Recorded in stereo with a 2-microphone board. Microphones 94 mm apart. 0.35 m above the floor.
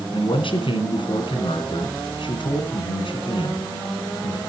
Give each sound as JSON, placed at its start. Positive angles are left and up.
{"t": 0.1, "sound": "a man speaking", "side_deg": 65, "distance_m": 3.0}